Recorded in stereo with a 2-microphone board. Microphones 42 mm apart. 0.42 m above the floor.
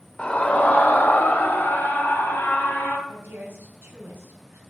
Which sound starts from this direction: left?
A scream, at 0.2 s.